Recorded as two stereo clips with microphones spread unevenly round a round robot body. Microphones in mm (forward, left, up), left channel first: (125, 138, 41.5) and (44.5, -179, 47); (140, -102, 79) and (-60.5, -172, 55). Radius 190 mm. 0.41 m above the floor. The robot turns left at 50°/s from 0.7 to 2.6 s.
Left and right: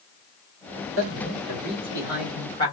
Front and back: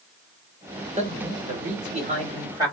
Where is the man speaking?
130° right, 1.3 m; by 2.8 s 145° left, 1.3 m.